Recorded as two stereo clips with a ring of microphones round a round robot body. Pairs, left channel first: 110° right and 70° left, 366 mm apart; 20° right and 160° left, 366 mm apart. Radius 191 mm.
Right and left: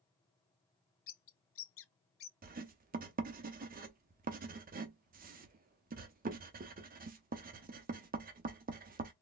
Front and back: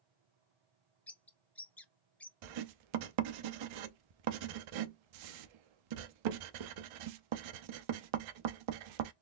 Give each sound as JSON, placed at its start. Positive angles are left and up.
{"t": 1.1, "sound": "a bird", "azimuth_deg": -105, "distance_m": 0.6}
{"t": 2.4, "sound": "writing", "azimuth_deg": 135, "distance_m": 0.6}